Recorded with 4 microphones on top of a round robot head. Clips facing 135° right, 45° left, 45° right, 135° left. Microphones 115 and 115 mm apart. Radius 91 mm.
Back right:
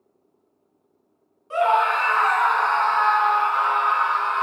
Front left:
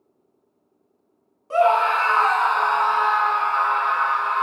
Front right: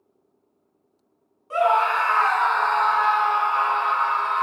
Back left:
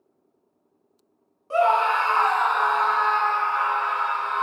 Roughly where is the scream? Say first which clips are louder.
Front left 2 dB, even; left.